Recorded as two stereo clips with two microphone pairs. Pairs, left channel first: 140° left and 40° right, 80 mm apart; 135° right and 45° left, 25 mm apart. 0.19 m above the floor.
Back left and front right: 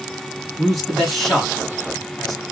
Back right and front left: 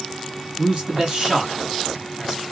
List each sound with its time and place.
0.6 s a man speaking: 60° left, 1.9 m